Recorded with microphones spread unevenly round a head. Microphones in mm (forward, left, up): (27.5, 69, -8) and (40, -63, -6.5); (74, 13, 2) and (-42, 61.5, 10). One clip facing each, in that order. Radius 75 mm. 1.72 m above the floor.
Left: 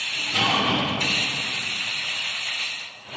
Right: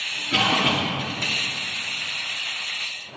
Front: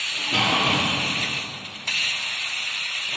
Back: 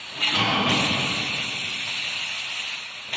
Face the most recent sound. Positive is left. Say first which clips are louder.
# right 1 dB, even
turn(degrees=-85)